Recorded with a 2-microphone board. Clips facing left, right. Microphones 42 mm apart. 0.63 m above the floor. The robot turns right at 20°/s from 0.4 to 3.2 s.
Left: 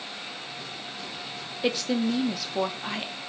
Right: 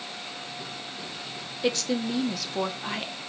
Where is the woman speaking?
10° left (ahead or behind), 0.6 m; by 3.1 s centre (ahead or behind), 0.6 m.